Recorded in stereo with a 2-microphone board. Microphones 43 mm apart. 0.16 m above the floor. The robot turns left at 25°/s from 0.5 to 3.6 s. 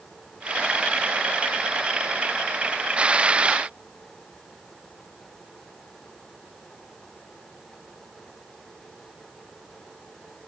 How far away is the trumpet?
I don't hear a trumpet.